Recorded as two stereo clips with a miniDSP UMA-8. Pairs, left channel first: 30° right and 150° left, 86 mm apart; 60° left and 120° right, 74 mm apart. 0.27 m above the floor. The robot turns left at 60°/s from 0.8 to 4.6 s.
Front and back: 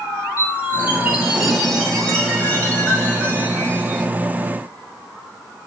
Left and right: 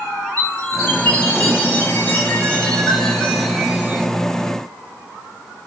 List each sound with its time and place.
0.4 s a chime: 115° left, 1.3 m; by 4.1 s 80° right, 1.3 m